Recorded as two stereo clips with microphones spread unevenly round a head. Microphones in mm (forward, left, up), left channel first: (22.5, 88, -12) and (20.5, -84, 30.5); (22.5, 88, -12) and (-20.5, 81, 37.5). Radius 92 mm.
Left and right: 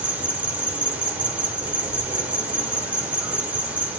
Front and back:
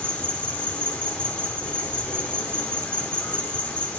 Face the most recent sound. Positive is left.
turn(degrees=0)